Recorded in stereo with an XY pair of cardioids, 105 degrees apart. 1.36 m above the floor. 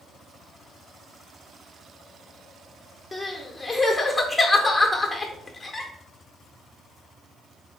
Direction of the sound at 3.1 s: 15° left.